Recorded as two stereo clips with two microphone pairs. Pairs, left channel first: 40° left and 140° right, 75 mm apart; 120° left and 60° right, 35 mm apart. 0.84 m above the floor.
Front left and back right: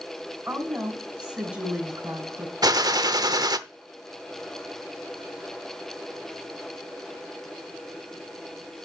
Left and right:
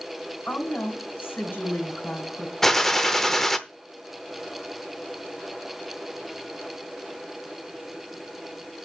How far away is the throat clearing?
I don't hear throat clearing.